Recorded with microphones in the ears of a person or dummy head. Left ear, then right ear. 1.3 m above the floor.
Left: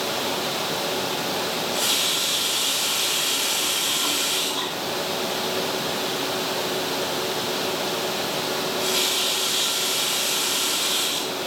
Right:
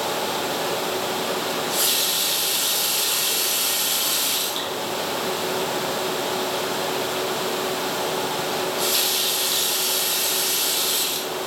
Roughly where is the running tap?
Right.